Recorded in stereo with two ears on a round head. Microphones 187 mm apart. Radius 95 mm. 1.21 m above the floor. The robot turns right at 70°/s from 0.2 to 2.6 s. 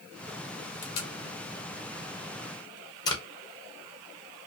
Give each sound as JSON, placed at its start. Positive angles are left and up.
{"t": 0.8, "sound": "tape being pulled", "side_deg": 35, "distance_m": 0.7}